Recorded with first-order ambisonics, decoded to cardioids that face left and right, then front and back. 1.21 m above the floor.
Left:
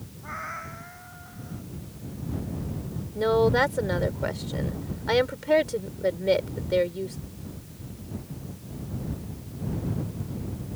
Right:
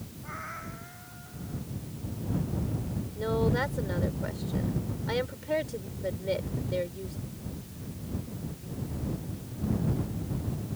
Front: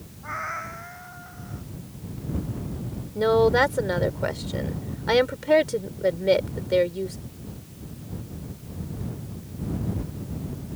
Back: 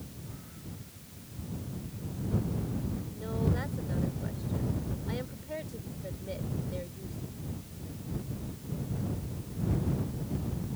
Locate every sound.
0.2 s a cat meowing: 20° left
3.1 s a woman speaking: 30° left